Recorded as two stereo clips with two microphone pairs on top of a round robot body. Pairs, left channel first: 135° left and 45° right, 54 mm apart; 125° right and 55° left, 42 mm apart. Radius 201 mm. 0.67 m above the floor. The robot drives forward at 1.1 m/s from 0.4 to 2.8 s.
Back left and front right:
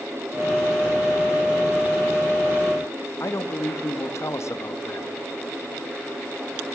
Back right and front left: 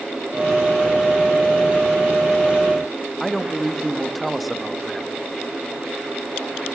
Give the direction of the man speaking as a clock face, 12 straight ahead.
7 o'clock.